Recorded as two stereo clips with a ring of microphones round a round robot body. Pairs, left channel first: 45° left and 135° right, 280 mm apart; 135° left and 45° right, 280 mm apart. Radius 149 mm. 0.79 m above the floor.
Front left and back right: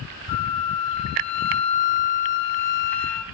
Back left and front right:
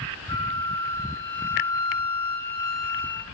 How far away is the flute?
About 0.6 m.